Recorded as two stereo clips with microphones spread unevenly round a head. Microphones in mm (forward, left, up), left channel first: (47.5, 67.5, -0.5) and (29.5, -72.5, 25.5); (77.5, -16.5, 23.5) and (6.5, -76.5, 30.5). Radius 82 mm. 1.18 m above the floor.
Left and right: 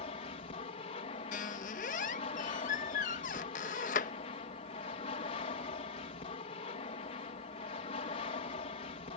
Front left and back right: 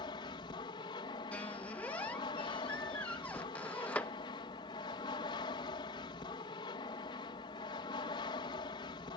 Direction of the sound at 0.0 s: 60° left.